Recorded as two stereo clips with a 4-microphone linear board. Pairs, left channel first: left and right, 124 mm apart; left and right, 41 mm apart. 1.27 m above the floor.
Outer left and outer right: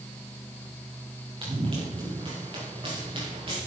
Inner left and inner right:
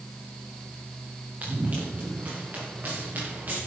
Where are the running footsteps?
40° right (ahead or behind), 4.5 m.